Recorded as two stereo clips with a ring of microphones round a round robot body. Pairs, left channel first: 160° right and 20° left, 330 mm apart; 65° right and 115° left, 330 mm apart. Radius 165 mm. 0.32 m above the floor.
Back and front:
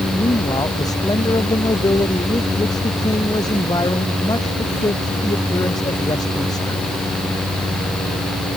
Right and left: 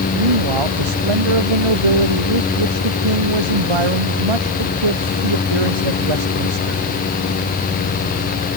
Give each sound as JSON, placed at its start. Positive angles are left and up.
{"t": 0.1, "sound": "a man speaking", "azimuth_deg": 125}